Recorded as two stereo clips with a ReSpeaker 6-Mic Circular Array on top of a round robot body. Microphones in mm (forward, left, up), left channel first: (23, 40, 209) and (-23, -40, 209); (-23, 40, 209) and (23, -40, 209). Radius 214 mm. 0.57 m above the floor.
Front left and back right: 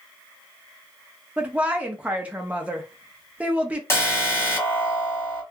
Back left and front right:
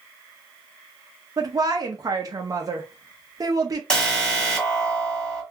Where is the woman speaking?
50° right, 0.8 m.